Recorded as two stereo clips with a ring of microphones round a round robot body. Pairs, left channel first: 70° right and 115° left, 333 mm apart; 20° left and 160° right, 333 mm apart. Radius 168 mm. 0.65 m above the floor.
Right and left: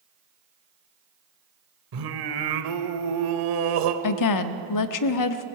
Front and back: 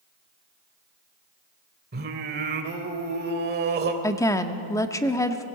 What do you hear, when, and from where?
1.9 s singing: 140° left, 1.5 m
4.0 s a woman speaking: 55° right, 1.0 m